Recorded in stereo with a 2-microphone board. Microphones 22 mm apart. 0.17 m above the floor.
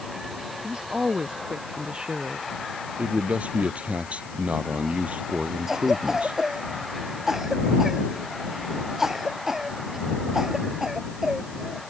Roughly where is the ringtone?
I don't hear a ringtone.